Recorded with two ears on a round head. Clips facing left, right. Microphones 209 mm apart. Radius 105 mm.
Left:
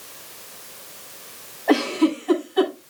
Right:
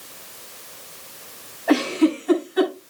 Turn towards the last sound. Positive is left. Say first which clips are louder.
# right 1 dB
turn(degrees=-10)  # may be behind; listen again after turning